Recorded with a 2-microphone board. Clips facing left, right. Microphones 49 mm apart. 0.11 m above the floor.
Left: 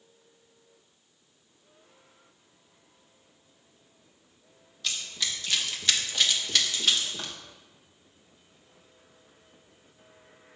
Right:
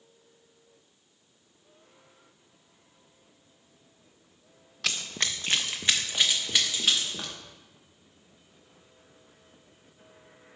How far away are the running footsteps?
About 0.6 m.